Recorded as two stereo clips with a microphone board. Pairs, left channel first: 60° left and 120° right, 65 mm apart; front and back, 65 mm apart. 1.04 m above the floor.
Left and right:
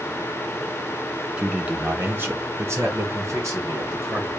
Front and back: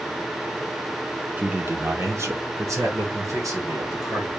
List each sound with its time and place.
1.4 s a man speaking: 175° right, 0.6 m; by 4.3 s 160° right, 1.9 m